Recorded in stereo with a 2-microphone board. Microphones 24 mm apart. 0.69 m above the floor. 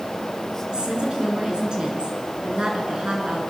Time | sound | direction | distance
0.7 | a woman speaking | 35° right (ahead or behind) | 8.5 m